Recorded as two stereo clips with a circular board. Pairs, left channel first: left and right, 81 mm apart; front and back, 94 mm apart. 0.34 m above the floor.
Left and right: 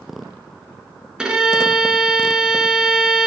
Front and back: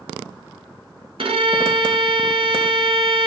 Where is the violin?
170° right, 0.7 m.